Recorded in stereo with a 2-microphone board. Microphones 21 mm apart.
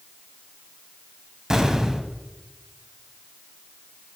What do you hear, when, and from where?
1.5 s an explosion: 30° right (ahead or behind), 0.7 m